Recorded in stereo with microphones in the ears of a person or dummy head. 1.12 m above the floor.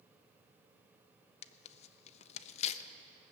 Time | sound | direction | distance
1.4 | tearing paper | 35° left (ahead or behind) | 0.5 m